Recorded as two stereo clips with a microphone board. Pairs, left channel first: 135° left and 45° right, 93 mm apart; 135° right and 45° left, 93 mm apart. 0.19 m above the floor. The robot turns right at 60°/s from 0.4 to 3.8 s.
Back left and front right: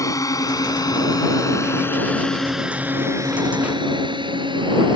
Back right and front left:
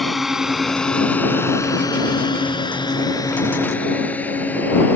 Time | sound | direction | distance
0.0 | a drone | 135° left | ?